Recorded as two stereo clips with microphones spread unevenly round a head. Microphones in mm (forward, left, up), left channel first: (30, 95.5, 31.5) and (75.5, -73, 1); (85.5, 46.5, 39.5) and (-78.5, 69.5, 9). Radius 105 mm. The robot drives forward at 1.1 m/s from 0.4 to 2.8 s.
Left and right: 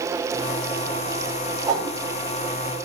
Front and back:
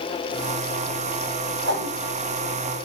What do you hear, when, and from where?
1.7 s a whoosh: 155° right, 4.5 m